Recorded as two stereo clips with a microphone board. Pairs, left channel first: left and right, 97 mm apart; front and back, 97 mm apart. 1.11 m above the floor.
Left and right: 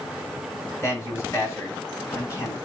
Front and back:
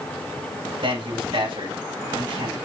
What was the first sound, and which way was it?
A man speaking, 155° left.